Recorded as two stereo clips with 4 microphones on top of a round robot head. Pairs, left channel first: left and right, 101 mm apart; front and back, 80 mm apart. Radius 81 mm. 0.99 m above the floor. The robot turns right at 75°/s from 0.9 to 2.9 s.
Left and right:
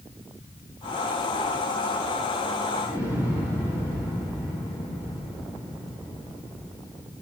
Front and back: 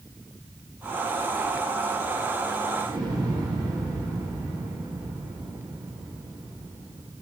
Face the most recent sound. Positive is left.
turn(degrees=150)